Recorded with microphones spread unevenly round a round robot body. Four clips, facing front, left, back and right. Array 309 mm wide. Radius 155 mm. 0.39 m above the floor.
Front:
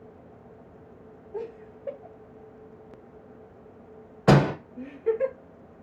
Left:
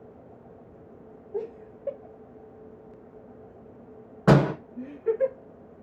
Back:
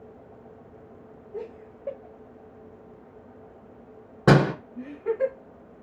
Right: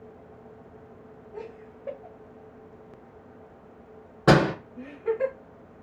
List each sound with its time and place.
1.3 s laughter: 95° left, 1.2 m; by 5.3 s 170° right, 3.5 m
4.3 s a door slam: 175° right, 2.5 m